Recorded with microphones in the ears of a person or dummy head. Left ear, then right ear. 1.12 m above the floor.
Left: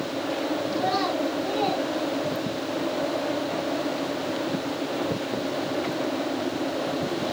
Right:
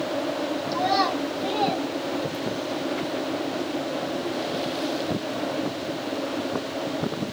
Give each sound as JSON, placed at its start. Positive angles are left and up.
{"t": 0.7, "sound": "a child speaking", "side_deg": -50, "distance_m": 5.0}